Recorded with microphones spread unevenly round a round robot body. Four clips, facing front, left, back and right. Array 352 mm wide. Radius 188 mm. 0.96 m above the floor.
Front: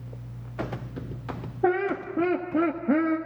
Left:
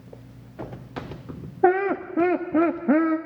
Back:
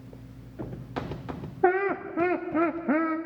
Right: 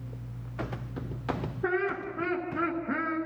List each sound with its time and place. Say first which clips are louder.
1.6 s laughter: left 10 dB, back 1 dB; 65° left, 1.4 m